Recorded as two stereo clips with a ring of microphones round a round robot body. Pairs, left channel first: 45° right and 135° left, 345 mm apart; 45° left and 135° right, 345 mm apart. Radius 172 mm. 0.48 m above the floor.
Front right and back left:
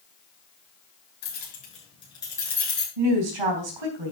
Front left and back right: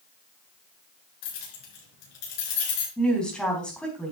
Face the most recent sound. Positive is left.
turn(degrees=130)